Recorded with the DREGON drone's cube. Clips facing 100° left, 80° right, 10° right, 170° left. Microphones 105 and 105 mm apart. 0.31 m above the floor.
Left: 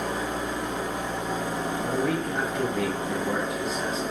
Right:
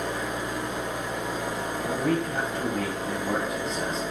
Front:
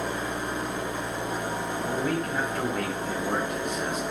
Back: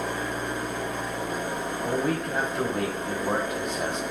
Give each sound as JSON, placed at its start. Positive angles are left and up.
{"t": 0.0, "sound": "an engine running", "azimuth_deg": 50, "distance_m": 0.9}
{"t": 1.9, "sound": "a man speaking", "azimuth_deg": -170, "distance_m": 1.2}